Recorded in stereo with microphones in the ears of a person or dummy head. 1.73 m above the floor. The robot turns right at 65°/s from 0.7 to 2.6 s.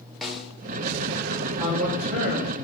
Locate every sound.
0.2 s a snare drum: centre (ahead or behind), 0.6 m
1.6 s a man speaking: 115° right, 1.8 m; by 2.6 s 50° right, 1.8 m